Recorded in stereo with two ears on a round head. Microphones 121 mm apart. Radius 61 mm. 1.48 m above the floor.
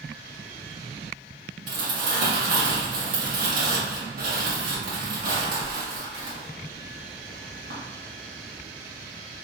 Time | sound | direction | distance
1.7 | crumpling | 70° right (ahead or behind) | 1.8 m